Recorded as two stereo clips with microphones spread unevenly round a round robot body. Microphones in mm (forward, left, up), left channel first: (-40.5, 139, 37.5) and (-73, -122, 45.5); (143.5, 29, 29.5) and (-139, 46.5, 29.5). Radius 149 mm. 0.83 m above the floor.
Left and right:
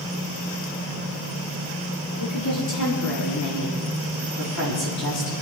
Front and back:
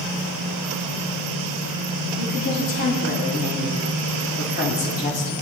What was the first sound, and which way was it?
A woman speaking, 50° left.